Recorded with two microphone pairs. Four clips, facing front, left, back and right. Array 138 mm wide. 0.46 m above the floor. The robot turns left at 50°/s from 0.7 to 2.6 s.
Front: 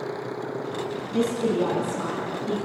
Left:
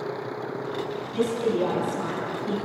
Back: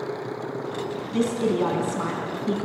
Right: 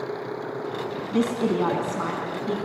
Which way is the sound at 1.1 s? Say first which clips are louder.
Right 1 dB, even; 100° right.